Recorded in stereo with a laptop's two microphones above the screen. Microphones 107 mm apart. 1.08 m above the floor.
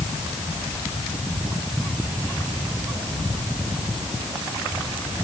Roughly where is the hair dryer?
I don't hear a hair dryer.